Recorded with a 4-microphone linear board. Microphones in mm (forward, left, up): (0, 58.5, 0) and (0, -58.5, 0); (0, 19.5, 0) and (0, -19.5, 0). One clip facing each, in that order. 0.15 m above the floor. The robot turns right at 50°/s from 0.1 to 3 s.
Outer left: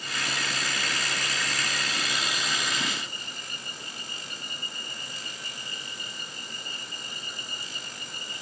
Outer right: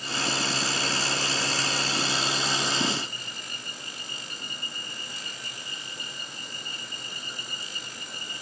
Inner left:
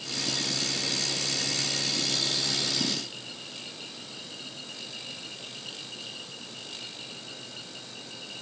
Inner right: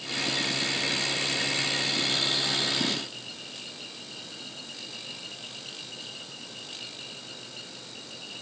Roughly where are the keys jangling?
I don't hear keys jangling.